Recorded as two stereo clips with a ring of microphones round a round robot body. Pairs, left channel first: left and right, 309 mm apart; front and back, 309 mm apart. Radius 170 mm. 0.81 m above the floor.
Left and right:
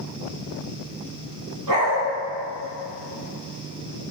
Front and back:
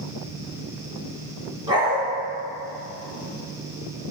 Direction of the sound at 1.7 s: 105° right.